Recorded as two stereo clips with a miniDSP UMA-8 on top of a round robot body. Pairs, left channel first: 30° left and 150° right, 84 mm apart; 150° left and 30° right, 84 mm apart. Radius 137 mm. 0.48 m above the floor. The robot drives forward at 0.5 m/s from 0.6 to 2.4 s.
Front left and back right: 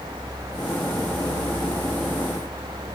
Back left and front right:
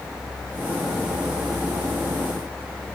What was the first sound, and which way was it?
Only background noise.